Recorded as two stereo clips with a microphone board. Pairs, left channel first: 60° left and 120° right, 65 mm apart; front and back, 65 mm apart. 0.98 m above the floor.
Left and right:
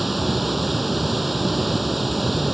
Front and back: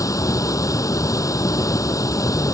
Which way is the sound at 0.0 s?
30° right.